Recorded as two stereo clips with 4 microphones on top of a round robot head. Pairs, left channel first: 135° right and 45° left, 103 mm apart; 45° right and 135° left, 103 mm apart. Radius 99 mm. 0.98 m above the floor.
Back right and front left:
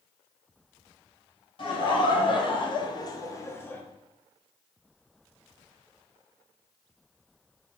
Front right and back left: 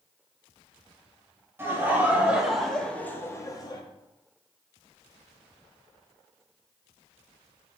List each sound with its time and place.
1.6 s laughter: 160° right, 1.3 m; by 3.8 s 70° right, 0.9 m